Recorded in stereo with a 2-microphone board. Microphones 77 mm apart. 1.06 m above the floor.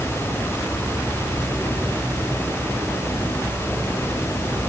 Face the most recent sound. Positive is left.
No sound to turn to.